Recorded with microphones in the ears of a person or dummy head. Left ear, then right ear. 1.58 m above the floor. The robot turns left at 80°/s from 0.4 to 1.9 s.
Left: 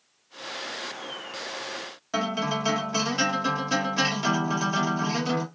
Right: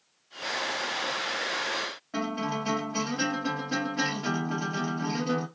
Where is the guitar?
80° left, 1.5 m.